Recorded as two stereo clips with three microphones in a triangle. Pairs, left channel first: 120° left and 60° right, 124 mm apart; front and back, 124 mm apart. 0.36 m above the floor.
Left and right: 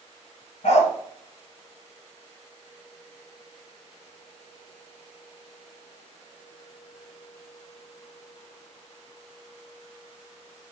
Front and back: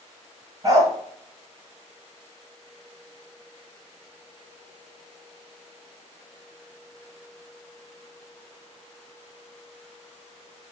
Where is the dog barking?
120° left, 1.2 m.